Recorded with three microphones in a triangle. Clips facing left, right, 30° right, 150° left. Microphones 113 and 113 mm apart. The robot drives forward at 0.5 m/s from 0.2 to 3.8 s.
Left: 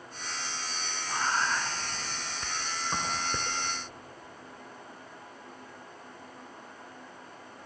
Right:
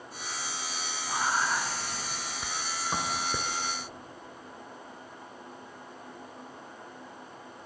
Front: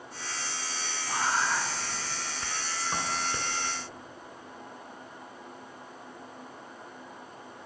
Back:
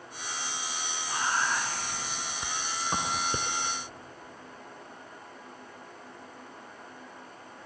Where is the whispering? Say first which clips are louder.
Right 1 dB, front 1 dB; 30° right, 1.1 m; by 3.5 s 165° right, 1.4 m.